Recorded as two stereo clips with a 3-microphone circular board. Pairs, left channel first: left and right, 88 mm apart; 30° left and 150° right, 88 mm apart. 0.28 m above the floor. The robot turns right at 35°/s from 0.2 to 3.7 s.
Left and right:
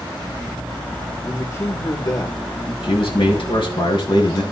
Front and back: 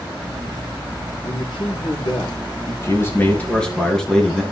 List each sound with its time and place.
1.2 s a man speaking: 20° left, 5 m; by 2.7 s 70° left, 5 m
2.8 s a man speaking: 80° left, 3.5 m; by 4.4 s 115° left, 3.5 m